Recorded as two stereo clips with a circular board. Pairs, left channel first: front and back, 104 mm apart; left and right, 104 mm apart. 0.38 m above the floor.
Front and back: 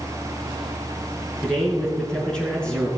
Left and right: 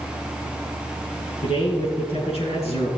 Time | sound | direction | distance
1.4 | a man speaking | 80° left | 4 m